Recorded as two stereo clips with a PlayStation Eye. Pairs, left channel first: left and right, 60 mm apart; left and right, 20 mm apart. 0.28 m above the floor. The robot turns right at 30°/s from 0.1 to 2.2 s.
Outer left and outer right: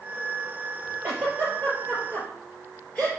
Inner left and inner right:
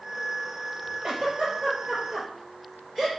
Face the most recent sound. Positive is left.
turn(degrees=10)  # may be behind; listen again after turning